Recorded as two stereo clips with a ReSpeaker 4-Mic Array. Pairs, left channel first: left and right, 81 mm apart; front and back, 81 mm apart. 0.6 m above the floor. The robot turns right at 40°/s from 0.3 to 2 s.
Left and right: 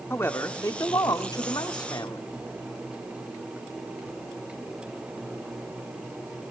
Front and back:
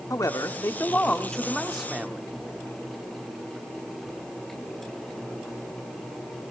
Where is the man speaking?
40° left, 1.3 m; by 2.2 s 105° left, 1.3 m.